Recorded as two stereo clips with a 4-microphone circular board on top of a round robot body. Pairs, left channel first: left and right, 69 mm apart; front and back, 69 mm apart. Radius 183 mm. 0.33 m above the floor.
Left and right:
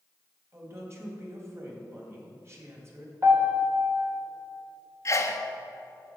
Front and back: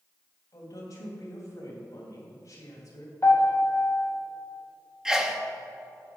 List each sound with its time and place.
0.5 s a woman speaking: 40° right, 3 m
3.2 s a piano: 45° right, 2 m
5.0 s a sneeze: 100° left, 1.7 m